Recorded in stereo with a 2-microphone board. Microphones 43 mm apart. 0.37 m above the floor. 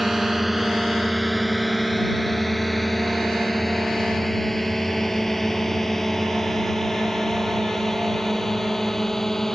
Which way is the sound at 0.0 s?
5° right (ahead or behind).